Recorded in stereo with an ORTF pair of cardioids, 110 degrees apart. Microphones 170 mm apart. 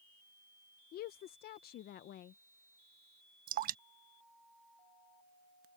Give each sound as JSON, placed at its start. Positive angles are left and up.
{"t": 0.9, "sound": "a woman speaking", "azimuth_deg": 65}
{"t": 3.5, "sound": "dripping", "azimuth_deg": -55}